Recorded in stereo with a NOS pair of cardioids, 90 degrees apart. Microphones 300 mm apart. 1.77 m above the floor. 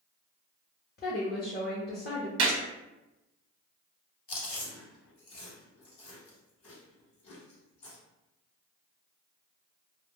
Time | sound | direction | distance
1.0 | a woman speaking | 35° left | 0.9 m
2.4 | a gunshot | 60° right | 0.9 m
4.3 | chewing | 45° left | 1.1 m